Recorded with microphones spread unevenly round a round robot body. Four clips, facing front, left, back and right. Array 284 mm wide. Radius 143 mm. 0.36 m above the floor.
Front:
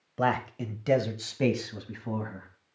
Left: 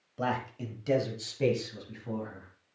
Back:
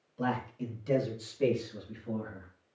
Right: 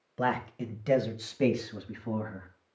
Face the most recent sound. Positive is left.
turn(degrees=-20)